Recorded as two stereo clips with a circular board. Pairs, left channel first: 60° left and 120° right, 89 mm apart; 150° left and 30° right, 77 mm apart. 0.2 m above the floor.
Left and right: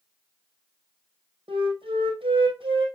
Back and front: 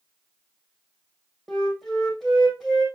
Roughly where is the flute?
Behind right.